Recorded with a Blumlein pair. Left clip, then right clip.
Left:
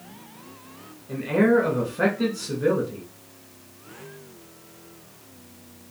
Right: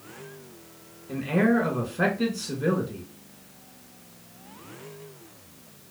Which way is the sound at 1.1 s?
Straight ahead.